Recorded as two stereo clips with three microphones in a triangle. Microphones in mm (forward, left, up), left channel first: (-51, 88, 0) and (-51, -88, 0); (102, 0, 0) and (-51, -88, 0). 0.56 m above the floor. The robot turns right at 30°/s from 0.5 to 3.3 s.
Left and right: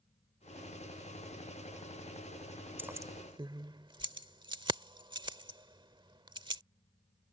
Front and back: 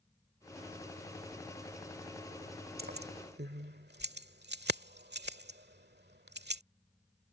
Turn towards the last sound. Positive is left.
turn(degrees=-155)